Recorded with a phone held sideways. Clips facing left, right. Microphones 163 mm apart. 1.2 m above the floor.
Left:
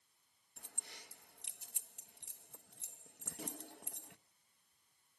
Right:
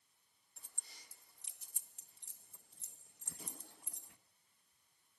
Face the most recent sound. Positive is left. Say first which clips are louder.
# left 7 dB
turn(degrees=75)  # may be behind; listen again after turning